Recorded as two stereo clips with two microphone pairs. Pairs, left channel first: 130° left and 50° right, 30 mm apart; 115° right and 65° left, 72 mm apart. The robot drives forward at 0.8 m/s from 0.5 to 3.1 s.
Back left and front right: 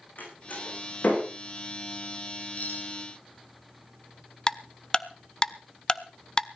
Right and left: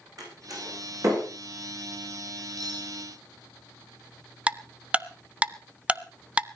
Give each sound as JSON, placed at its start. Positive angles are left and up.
{"t": 0.2, "sound": "a door slam", "azimuth_deg": 100, "distance_m": 10.0}
{"t": 2.6, "sound": "cutlery clinking", "azimuth_deg": 90, "distance_m": 3.0}
{"t": 4.5, "sound": "ticking", "azimuth_deg": 115, "distance_m": 0.6}